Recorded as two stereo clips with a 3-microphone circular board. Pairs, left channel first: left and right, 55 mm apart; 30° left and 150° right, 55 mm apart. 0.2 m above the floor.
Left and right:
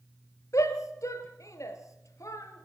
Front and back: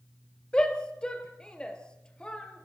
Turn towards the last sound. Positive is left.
turn(degrees=105)